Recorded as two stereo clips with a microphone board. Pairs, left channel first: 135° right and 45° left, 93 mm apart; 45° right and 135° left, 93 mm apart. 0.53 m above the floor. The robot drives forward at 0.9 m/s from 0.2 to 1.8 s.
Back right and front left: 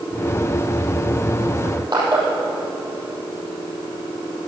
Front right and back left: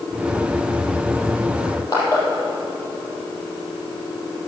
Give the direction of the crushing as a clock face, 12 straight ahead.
12 o'clock.